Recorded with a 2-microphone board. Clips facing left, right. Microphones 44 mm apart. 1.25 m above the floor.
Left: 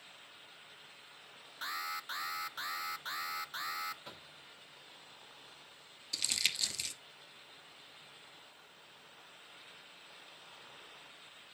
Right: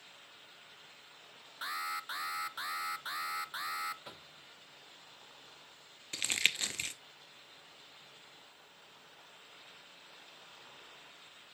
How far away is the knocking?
About 0.9 m.